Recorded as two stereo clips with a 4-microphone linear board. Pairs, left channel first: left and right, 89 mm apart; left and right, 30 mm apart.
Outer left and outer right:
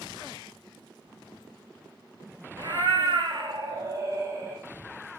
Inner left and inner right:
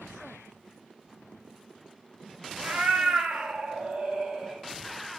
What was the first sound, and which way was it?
A cat meowing, 55° right (ahead or behind).